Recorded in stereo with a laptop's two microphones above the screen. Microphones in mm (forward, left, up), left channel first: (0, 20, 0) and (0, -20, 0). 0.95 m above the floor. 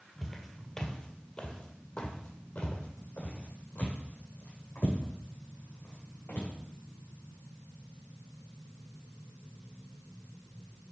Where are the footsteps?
5° left (ahead or behind), 1.4 m; by 6.5 s 65° left (ahead or behind), 4 m.